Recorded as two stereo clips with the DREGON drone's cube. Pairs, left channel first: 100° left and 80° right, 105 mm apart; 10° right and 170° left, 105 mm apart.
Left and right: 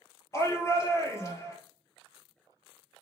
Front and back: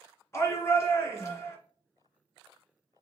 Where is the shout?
45° left, 2 m.